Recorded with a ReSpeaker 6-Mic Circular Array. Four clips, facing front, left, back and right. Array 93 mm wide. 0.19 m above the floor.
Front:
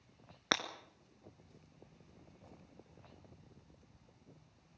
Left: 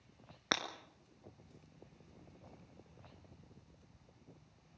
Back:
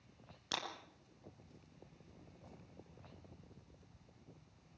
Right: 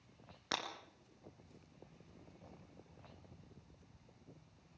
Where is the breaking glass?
30° left, 2.0 m.